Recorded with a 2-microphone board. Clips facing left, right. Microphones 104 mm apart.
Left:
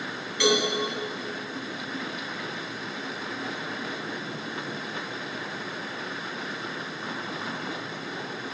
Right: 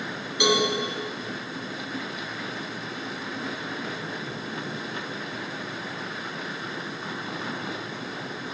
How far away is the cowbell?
About 3 m.